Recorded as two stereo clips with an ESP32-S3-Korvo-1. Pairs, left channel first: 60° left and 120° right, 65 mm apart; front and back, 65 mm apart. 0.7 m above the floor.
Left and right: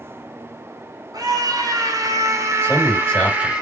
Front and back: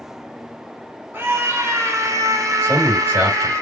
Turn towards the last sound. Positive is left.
turn(degrees=130)